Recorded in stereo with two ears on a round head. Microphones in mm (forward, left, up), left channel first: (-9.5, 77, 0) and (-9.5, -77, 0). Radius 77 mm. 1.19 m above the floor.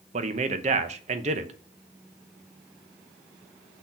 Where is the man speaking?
40° right (ahead or behind), 0.8 m.